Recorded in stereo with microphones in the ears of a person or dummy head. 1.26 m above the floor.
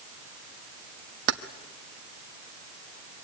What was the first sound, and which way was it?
Keys jangling, 65° right (ahead or behind).